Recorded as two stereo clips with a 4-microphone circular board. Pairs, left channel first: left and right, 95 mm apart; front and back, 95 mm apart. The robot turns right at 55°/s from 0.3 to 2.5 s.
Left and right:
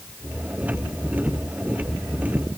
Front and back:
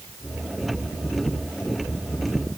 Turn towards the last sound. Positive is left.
No sound to turn to.